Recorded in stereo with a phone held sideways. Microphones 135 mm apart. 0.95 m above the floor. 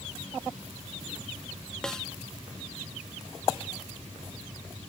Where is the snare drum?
5° left (ahead or behind).